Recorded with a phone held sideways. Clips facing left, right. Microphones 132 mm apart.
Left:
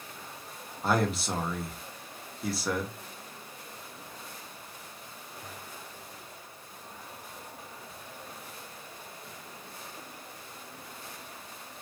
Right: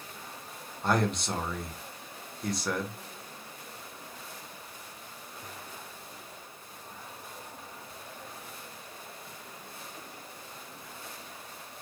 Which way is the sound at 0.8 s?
5° left (ahead or behind).